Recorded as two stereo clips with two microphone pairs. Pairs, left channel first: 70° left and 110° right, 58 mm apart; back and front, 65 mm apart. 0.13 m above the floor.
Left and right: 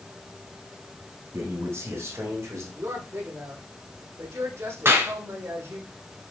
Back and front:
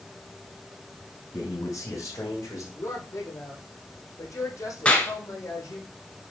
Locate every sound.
1.3 s a man speaking: 150° right, 6 m; by 2.6 s 140° right, 5.5 m
2.8 s a woman speaking: 145° right, 5 m
4.8 s a clap: 120° right, 1.7 m